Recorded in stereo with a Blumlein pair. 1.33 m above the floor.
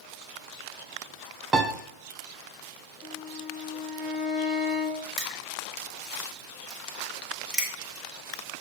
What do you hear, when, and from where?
1.5 s a piano: 15° right, 0.7 m
3.0 s a violin: 5° left, 1.1 m
5.2 s crushing: 5° right, 1.9 m